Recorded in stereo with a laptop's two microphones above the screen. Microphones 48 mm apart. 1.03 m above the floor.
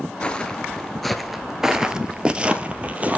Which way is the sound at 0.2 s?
20° left (ahead or behind).